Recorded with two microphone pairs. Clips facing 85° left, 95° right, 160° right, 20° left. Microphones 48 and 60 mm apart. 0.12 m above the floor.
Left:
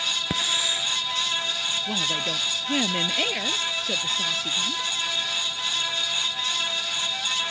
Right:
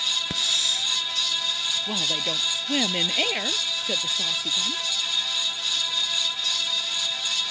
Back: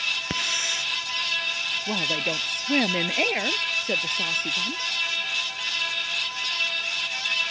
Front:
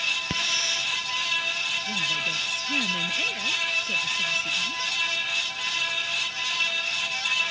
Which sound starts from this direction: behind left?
A hiss, at 0.3 s.